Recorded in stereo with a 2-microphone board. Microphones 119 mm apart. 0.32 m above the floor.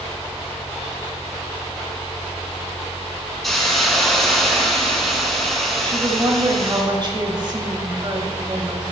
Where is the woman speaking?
40° right (ahead or behind), 1.2 m.